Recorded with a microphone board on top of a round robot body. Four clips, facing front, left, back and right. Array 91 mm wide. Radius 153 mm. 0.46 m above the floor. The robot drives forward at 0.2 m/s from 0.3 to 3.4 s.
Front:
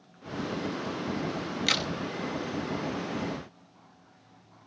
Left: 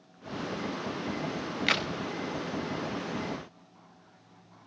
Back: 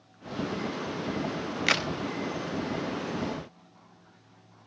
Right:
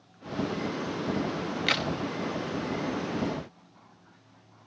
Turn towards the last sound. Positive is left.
turn(degrees=170)